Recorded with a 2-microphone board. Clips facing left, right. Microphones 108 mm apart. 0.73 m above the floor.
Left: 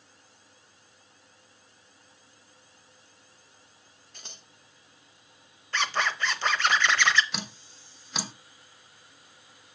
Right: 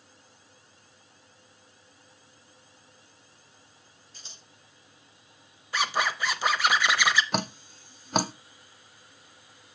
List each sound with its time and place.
4.1 s scissors: 60° left (ahead or behind), 0.8 m
5.7 s a zipper: 10° right (ahead or behind), 0.7 m
7.3 s dripping: 50° right (ahead or behind), 0.5 m